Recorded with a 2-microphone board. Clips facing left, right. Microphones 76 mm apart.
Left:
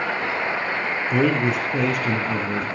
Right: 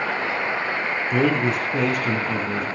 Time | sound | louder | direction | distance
1.1 | a man speaking | even | 5° left (ahead or behind) | 1.4 m